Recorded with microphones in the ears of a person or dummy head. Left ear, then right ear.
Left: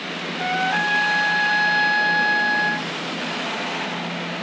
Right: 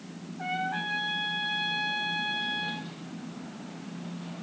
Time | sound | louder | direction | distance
0.4 | a trumpet | left 10 dB | 55° left (ahead or behind) | 1.4 m